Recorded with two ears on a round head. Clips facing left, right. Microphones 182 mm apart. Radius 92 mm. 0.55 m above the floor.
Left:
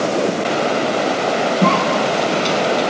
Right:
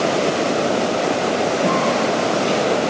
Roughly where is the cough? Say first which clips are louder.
Left 1 dB; left.